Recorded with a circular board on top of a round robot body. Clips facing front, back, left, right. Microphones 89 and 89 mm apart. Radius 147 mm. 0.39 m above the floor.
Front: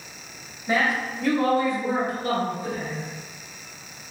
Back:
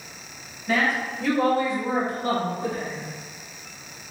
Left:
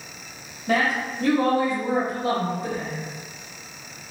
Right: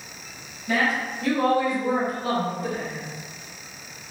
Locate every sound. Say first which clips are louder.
0.7 s a woman speaking: even, left 1 dB; 70° left, 1.4 m; by 3.0 s straight behind, 1.6 m